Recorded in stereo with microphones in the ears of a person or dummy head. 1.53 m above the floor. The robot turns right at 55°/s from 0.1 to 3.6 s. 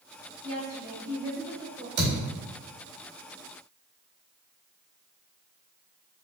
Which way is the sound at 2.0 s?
50° right (ahead or behind).